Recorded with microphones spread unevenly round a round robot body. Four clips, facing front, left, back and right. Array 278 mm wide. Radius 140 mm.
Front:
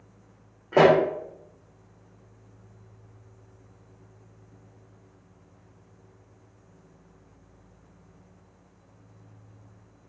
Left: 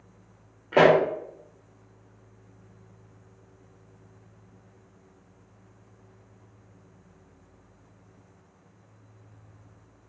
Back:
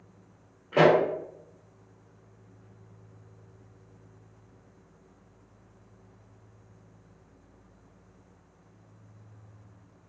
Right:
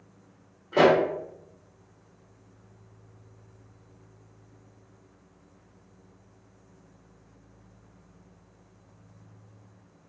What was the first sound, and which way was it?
A pop, 50° left.